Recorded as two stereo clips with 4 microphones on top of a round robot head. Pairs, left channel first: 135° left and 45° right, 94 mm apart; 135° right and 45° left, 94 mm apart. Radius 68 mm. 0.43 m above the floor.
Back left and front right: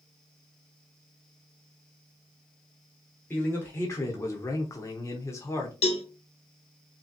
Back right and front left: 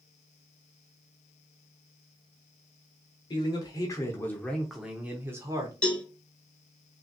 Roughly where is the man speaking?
Behind.